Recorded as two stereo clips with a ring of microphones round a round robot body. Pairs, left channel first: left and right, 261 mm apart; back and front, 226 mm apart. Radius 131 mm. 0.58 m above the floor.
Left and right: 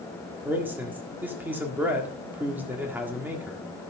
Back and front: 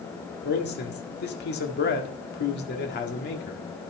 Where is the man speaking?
170° right, 1.7 m.